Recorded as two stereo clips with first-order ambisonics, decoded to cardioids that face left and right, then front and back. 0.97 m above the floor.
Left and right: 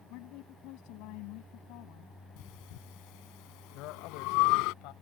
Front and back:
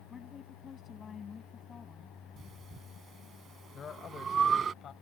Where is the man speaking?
65° left.